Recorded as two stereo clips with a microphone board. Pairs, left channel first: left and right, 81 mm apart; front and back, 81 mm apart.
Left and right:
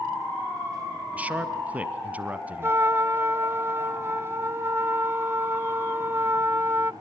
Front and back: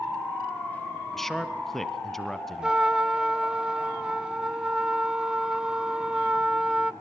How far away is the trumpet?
About 0.6 m.